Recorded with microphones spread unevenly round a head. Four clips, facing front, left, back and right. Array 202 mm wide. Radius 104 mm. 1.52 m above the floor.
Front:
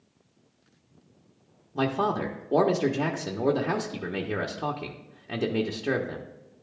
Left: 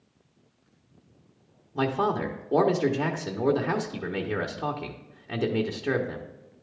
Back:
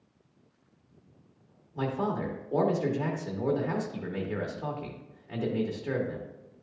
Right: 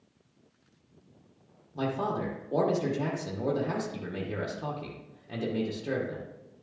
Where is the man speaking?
25° left, 1.1 m.